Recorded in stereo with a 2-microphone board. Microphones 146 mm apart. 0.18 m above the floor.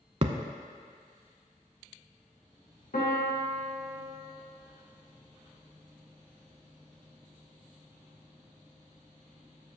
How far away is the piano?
About 3 m.